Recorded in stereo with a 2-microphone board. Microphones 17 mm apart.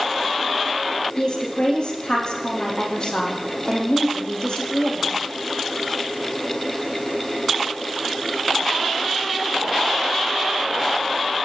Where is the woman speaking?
50° left (ahead or behind), 7 m.